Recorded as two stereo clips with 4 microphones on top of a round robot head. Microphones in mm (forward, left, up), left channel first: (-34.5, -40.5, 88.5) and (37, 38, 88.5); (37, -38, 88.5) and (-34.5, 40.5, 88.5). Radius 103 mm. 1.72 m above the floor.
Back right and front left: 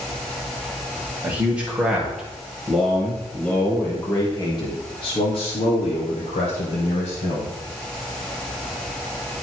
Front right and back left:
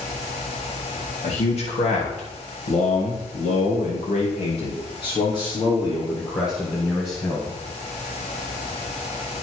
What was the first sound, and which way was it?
A man speaking, 25° right.